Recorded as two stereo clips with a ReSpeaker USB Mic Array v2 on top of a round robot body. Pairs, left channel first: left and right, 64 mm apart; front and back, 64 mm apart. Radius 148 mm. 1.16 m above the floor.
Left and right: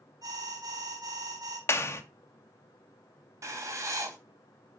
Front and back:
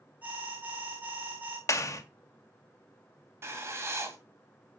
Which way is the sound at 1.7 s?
40° left.